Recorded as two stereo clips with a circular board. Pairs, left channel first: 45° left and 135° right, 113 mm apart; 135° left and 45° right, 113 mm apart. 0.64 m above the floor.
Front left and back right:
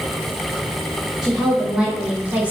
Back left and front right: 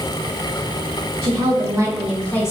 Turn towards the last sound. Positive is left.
turn(degrees=160)